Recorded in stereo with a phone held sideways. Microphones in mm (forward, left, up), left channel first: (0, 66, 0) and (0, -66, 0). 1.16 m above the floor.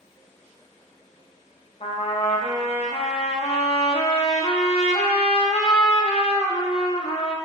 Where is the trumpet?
50° left (ahead or behind), 0.5 m.